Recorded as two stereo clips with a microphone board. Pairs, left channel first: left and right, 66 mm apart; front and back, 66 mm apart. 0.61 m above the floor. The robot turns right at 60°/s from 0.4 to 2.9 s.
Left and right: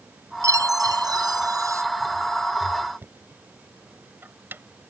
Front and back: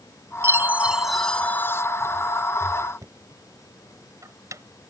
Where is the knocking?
145° right.